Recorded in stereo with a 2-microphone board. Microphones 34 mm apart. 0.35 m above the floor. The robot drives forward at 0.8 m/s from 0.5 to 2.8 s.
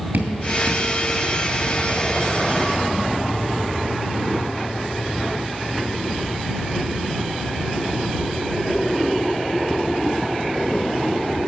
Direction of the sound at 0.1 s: 75° right (ahead or behind).